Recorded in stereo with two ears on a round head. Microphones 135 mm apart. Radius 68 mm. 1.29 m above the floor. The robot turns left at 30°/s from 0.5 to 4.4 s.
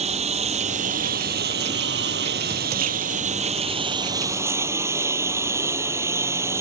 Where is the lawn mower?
45° right; by 6.6 s 160° right.